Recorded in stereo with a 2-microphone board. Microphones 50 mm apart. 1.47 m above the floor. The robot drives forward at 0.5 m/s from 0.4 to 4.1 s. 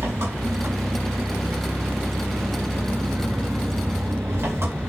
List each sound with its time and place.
0.0 s an engine running: 80° right, 7 m; by 4.9 s 65° right (ahead or behind), 7.5 m